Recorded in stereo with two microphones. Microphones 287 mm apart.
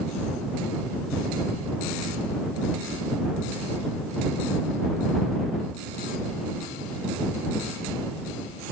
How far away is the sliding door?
I don't hear a sliding door.